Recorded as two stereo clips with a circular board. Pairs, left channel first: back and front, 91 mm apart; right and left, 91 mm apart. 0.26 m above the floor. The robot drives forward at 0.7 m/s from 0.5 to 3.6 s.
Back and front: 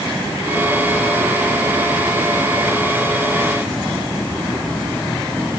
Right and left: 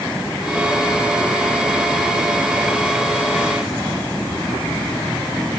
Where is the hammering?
I don't hear hammering.